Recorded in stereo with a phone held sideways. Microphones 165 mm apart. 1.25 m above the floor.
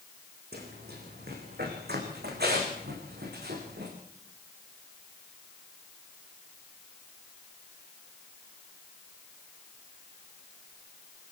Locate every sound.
0.5 s running footsteps: 80° right, 6 m